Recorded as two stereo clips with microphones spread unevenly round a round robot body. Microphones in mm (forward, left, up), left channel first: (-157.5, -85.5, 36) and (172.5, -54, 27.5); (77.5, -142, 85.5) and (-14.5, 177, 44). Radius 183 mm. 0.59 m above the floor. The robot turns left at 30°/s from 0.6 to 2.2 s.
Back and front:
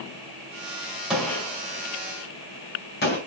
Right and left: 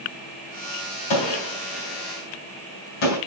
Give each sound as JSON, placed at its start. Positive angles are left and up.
{"t": 1.1, "sound": "a gunshot", "azimuth_deg": -80, "distance_m": 4.0}